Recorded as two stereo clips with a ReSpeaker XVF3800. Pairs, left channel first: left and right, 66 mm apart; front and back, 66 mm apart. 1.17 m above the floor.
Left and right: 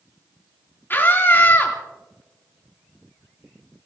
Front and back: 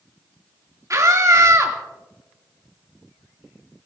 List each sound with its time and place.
0.9 s a scream: 145° left, 2.5 m